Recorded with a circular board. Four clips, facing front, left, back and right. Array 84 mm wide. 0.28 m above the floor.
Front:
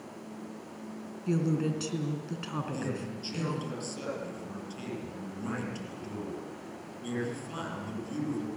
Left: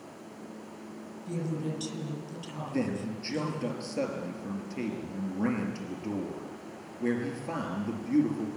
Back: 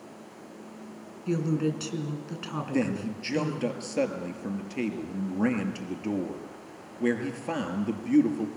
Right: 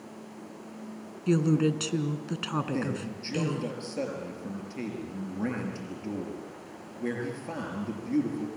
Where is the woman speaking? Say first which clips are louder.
Right 10 dB, back 2 dB; 95° right, 3 m.